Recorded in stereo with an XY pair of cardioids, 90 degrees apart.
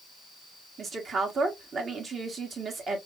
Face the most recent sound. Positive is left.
turn(degrees=-50)